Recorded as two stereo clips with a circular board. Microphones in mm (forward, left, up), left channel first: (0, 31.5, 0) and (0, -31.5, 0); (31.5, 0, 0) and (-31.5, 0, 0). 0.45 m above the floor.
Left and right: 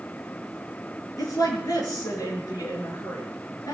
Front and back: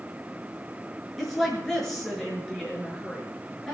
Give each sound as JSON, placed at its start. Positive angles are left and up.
{"t": 1.2, "sound": "a woman speaking", "azimuth_deg": 85, "distance_m": 6.5}